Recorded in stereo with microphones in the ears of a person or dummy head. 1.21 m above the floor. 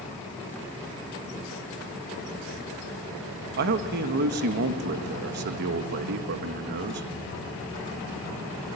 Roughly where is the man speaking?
Right.